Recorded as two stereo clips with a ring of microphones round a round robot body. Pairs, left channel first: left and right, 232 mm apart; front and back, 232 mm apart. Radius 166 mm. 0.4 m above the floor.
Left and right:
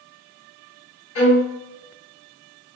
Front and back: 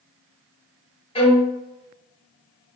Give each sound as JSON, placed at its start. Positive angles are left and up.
{"t": 1.1, "sound": "a violin", "azimuth_deg": 65, "distance_m": 2.0}